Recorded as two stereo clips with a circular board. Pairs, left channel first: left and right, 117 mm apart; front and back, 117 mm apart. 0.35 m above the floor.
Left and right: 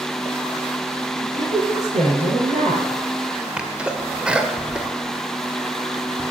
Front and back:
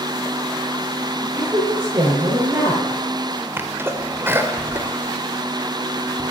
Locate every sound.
1.2 s a woman speaking: 105° right, 5.5 m
3.6 s a sneeze: 155° right, 1.2 m